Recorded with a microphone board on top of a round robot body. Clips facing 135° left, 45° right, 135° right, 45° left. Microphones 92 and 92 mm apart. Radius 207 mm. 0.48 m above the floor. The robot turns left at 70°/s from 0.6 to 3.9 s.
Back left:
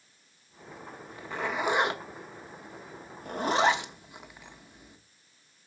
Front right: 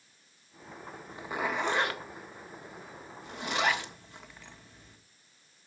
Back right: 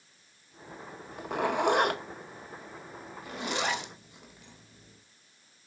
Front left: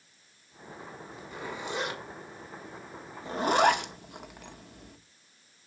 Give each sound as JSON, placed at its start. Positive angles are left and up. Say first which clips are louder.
{"t": 1.1, "sound": "a zipper", "louder": "even, back right 11 dB", "azimuth_deg": -105, "distance_m": 1.3}